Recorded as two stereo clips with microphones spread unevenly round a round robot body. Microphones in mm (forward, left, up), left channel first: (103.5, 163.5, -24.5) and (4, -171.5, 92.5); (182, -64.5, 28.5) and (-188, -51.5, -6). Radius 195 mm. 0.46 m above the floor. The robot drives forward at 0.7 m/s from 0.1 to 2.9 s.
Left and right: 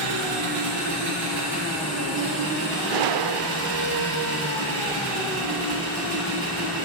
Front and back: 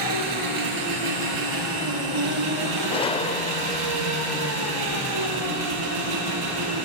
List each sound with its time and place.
0.0 s an engine running: 150° right, 3 m; by 6.8 s 160° right, 5 m
2.9 s a gunshot: 80° right, 0.6 m